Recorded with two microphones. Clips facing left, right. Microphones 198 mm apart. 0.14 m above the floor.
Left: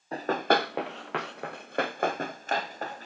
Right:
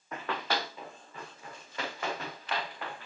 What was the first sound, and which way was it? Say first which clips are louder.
Running footsteps: left 9 dB; 35° left (ahead or behind).